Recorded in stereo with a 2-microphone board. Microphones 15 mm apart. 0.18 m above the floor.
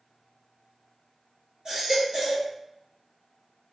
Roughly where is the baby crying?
Right.